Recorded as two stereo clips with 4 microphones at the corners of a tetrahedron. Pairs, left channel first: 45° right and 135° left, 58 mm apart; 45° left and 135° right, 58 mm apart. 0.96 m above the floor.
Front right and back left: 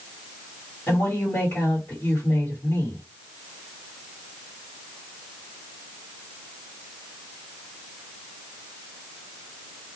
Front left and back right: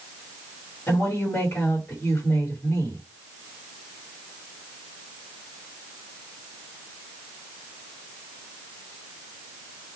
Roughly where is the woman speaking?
Ahead.